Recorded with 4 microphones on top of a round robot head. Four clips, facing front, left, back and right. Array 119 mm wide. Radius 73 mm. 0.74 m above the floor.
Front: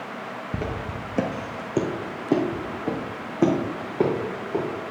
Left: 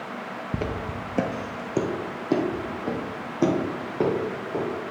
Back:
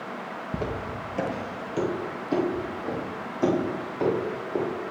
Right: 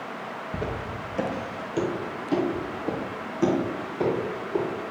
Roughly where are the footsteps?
Left.